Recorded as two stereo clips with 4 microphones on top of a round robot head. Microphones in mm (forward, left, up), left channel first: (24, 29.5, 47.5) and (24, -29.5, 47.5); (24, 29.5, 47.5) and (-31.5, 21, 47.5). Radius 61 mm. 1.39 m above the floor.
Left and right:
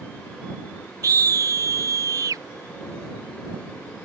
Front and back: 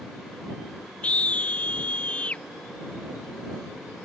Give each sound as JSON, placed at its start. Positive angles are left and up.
{"t": 1.0, "sound": "a scream", "azimuth_deg": -65}